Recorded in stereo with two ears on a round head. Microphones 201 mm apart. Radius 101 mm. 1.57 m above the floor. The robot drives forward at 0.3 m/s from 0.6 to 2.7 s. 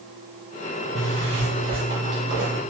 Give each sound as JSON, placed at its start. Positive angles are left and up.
{"t": 0.9, "sound": "a zipper", "side_deg": -30, "distance_m": 1.2}